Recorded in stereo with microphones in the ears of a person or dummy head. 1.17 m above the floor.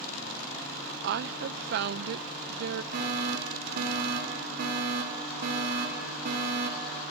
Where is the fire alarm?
50° right (ahead or behind), 4 m.